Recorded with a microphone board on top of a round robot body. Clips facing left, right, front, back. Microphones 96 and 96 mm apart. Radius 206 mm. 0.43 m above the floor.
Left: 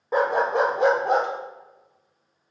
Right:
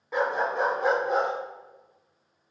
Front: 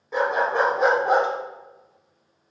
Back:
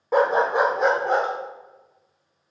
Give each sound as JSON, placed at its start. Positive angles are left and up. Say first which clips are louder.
{"t": 0.1, "sound": "a dog barking", "louder": "left 5 dB, back 3 dB", "azimuth_deg": 145, "distance_m": 0.7}